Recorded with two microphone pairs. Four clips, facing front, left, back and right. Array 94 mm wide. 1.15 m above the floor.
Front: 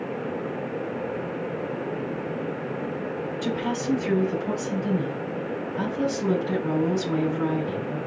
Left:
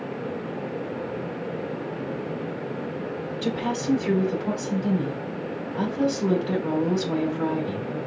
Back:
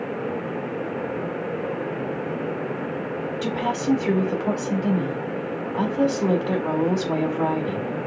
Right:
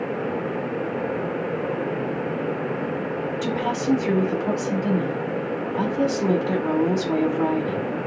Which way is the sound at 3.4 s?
160° right.